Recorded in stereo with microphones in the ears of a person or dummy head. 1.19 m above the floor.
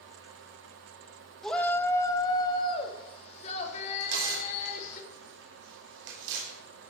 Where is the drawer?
No drawer in this recording.